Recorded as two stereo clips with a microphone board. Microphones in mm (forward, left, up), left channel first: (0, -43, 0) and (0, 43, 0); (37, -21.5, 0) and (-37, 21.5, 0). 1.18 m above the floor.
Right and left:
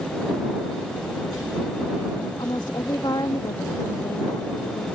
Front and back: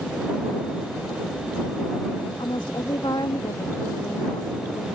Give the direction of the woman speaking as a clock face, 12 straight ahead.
2 o'clock.